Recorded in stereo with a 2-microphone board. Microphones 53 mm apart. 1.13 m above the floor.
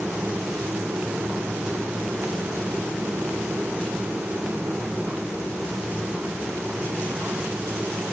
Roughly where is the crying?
I don't hear crying.